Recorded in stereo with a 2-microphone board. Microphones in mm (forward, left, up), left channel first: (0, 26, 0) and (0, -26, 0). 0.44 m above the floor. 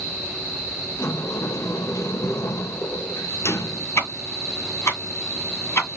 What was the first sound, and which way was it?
A sliding door, 70° left (ahead or behind).